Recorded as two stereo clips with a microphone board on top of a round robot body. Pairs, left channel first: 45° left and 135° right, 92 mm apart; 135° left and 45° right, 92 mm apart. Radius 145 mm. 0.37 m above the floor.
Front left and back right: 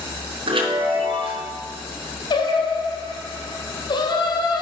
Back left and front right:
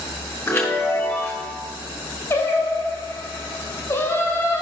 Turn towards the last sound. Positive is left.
turn(degrees=75)